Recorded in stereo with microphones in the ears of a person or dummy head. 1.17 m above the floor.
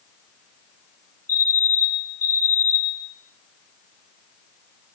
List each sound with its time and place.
1.3 s a fire alarm: 10° left (ahead or behind), 3 m